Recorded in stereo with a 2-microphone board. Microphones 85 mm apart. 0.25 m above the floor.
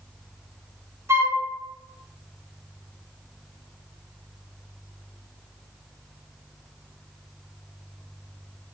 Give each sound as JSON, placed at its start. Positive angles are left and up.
{"t": 1.1, "sound": "a flute", "side_deg": -35, "distance_m": 2.5}